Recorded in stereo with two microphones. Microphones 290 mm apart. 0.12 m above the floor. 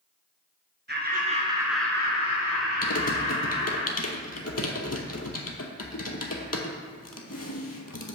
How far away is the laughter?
About 1.6 m.